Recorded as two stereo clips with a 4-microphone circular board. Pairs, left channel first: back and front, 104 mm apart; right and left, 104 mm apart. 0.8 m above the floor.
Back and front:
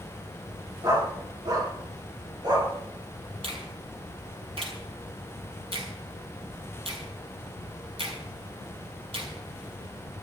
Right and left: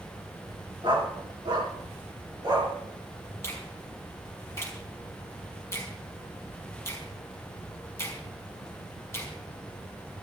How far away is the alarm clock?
I don't hear an alarm clock.